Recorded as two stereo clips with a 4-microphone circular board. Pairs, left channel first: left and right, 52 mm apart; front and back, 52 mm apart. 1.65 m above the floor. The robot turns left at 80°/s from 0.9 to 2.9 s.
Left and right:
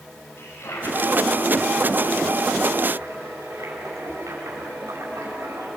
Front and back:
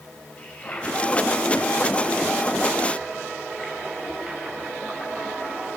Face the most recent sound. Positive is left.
turn(degrees=-100)